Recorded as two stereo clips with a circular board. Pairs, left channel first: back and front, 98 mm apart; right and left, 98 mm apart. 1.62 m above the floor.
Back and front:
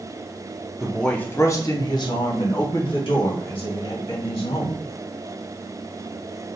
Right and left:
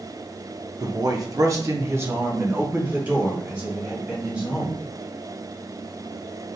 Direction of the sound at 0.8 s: 80° left.